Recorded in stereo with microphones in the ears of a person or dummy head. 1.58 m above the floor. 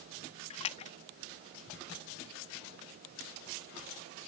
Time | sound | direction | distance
0.5 | a splash | 40° left (ahead or behind) | ?